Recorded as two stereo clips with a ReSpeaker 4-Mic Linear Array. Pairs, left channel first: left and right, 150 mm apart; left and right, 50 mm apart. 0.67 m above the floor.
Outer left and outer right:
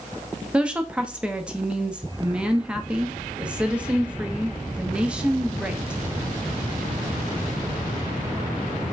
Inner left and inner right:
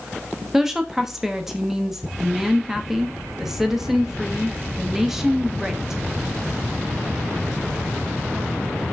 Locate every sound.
0.5 s a woman speaking: 5° right (ahead or behind), 0.6 m